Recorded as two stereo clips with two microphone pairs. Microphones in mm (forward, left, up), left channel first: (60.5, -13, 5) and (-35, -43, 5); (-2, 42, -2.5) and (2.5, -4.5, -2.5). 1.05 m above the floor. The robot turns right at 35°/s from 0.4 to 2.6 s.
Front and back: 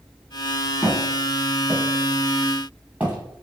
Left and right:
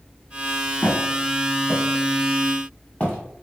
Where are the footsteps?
20° right, 1.3 m; by 3.2 s 145° left, 1.3 m.